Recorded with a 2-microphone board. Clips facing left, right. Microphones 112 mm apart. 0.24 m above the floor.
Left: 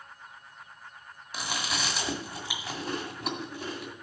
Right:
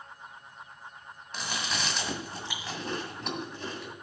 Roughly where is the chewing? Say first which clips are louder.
Left 1 dB; centre.